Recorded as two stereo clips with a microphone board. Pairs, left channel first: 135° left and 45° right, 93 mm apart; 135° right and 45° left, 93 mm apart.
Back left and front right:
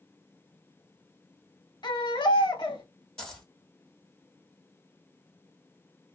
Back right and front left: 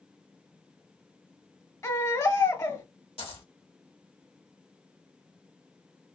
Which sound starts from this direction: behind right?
A dropped coin, at 3.2 s.